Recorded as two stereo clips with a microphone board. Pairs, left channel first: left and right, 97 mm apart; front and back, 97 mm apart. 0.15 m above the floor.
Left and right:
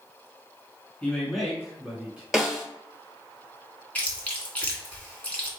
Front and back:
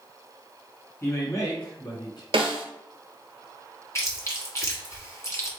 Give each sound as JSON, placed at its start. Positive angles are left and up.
{"t": 1.0, "sound": "a man speaking", "azimuth_deg": 25, "distance_m": 1.3}
{"t": 2.3, "sound": "a snare drum", "azimuth_deg": -175, "distance_m": 1.1}
{"t": 4.0, "sound": "chewing", "azimuth_deg": 25, "distance_m": 1.3}